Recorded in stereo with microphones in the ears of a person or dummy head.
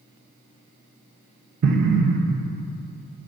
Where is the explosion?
65° right (ahead or behind), 0.7 m.